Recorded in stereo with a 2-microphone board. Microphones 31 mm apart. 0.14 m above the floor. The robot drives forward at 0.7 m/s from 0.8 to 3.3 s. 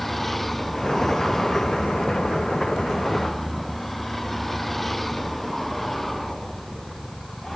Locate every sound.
0.0 s a vehicle: 5° left (ahead or behind)